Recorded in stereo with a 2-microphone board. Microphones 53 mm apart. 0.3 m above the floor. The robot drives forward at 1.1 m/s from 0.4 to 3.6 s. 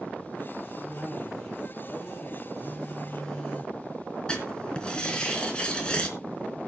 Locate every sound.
0.8 s a cough: 25° left (ahead or behind), 9 m; by 2.5 s 30° left (ahead or behind), 7 m
2.6 s a phone buzzing: 15° left (ahead or behind), 3 m; by 3.7 s 20° left (ahead or behind), 2 m
4.3 s writing: 20° left (ahead or behind), 3.5 m